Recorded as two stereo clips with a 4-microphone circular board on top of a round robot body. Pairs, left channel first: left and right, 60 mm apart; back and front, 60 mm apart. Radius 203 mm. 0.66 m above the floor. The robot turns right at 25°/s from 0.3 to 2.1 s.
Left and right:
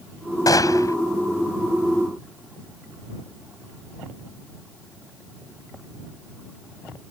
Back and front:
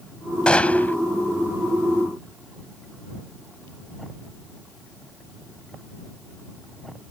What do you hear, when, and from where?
0.5 s a gunshot: 105° left; by 1.0 s 120° left